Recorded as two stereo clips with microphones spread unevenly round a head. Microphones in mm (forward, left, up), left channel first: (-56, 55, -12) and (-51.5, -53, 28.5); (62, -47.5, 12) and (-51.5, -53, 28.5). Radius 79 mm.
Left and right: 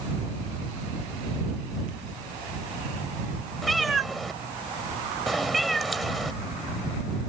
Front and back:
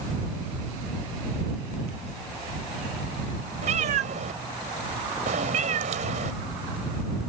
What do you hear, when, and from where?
3.6 s a cat meowing: 170° right